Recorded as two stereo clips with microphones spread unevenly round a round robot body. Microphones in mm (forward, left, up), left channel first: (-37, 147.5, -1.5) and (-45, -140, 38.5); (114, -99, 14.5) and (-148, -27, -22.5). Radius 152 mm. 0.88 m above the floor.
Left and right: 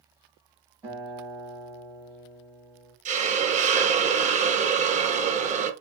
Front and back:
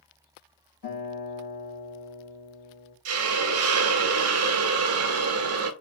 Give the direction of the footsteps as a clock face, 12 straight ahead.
No footsteps in this recording.